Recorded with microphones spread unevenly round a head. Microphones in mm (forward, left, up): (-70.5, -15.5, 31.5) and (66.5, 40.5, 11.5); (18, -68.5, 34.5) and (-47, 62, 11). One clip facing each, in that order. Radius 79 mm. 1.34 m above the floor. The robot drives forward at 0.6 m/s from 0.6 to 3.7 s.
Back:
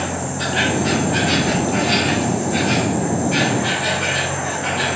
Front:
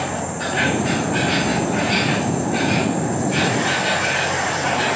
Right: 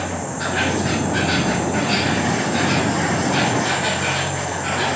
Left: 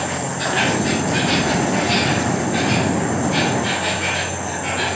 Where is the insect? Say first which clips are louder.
Back 1 dB, left 1 dB; 160° left, 1.7 m; by 5.0 s 170° left, 3.5 m.